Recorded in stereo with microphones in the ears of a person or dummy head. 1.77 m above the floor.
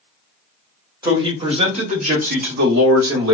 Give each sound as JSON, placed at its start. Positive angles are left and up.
{"t": 1.0, "sound": "a man speaking", "side_deg": -20, "distance_m": 1.5}